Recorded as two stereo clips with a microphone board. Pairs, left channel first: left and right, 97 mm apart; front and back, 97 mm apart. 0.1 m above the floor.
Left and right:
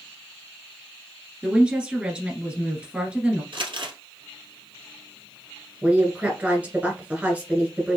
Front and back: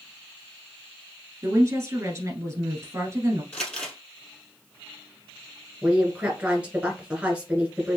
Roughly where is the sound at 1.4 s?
Behind.